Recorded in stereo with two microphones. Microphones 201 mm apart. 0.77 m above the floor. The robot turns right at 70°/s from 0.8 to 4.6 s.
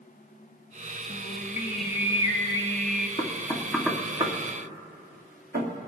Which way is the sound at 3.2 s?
35° left (ahead or behind).